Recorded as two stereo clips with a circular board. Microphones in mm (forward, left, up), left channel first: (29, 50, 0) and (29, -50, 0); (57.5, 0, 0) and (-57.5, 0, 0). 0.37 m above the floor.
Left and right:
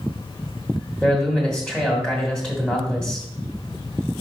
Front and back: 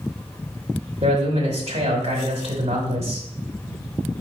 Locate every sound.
1.0 s a man speaking: 170° left, 2.0 m